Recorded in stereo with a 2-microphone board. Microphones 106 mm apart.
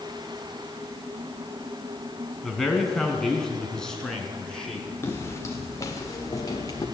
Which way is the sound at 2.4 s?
Centre (ahead or behind).